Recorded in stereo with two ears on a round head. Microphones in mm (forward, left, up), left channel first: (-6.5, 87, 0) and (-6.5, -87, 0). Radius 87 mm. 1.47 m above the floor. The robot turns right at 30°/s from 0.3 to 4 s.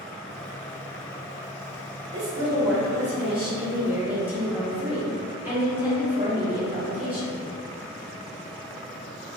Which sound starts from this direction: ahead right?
A woman speaking, at 2.1 s.